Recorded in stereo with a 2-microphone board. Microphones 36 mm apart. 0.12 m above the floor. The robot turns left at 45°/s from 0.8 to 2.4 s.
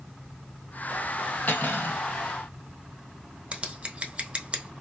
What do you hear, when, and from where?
1.5 s cutlery clinking: 55° left (ahead or behind), 1.9 m; by 2.0 s 70° left (ahead or behind), 1.9 m
3.5 s scissors: 30° right (ahead or behind), 0.8 m